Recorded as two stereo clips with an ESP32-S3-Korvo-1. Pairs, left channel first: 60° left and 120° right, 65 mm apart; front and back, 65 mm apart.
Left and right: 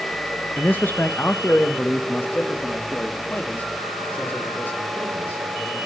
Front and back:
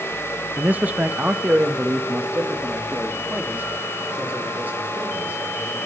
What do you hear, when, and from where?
0.6 s a man speaking: 120° left, 0.9 m